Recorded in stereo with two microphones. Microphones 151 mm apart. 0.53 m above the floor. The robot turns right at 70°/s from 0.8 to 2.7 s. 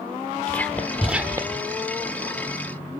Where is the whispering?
10° left (ahead or behind), 1.3 m; by 1.6 s 35° right (ahead or behind), 1.3 m.